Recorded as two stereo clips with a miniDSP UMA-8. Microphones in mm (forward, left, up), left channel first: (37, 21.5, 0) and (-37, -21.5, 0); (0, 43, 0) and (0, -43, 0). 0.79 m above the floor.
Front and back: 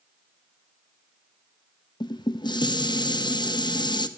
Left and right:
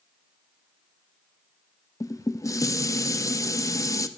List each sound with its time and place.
2.0 s dishes clattering: 45° left, 0.6 m